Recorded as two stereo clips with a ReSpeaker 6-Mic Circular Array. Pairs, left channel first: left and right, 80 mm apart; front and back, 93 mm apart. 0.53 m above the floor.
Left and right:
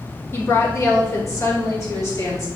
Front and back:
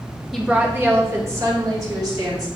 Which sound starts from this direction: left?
A woman speaking, at 0.3 s.